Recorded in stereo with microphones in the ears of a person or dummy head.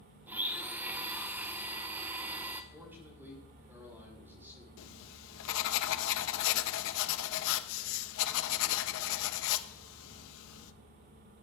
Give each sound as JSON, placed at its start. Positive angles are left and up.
{"t": 0.3, "sound": "a blender", "side_deg": -10, "distance_m": 1.3}
{"t": 2.7, "sound": "a man speaking", "side_deg": -10, "distance_m": 5.0}
{"t": 4.8, "sound": "writing", "side_deg": 75, "distance_m": 0.8}